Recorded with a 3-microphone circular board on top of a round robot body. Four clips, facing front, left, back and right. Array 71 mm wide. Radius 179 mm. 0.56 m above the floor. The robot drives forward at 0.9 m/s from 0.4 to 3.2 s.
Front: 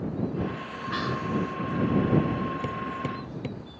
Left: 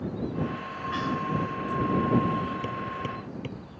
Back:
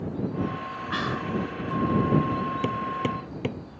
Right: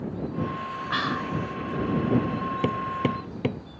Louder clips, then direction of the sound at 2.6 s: Right 6 dB, back 4 dB; 105° right.